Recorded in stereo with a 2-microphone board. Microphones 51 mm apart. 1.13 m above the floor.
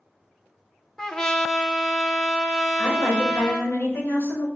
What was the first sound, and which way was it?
A trumpet, 10° left (ahead or behind).